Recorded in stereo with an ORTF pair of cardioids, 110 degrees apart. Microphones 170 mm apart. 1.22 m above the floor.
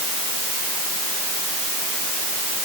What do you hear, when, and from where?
Only background noise.